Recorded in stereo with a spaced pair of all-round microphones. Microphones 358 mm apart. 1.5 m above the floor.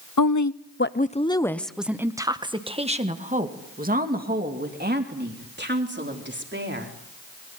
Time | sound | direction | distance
0.2 | a woman speaking | 65° left (ahead or behind) | 0.8 m